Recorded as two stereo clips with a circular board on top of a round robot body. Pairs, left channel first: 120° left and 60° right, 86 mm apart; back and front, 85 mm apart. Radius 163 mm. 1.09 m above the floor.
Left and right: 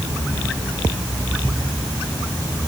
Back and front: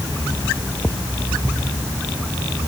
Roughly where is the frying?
I don't hear frying.